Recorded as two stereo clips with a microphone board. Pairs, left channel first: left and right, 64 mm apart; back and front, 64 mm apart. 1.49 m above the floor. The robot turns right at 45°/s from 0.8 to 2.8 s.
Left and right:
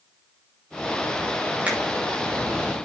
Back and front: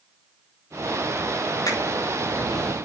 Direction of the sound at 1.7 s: 160° right.